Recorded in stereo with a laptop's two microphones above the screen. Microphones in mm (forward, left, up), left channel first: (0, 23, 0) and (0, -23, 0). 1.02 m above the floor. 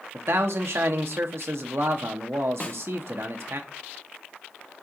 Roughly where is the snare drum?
Left.